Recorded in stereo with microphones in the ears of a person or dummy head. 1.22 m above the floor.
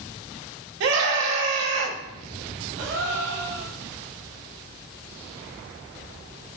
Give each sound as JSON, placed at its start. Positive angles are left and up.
{"t": 0.8, "sound": "a scream", "side_deg": -70, "distance_m": 1.6}
{"t": 2.8, "sound": "a gasp", "side_deg": -70, "distance_m": 2.0}